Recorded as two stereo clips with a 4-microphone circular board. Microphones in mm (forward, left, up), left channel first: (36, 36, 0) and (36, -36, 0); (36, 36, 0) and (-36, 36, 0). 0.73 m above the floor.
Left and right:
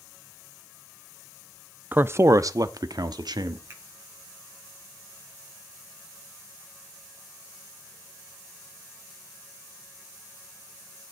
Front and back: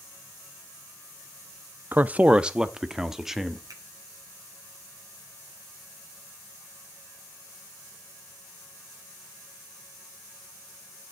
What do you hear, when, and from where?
1.9 s a man speaking: 135° right, 0.6 m; by 3.6 s 95° right, 1.5 m
3.7 s a finger snap: 145° right, 4 m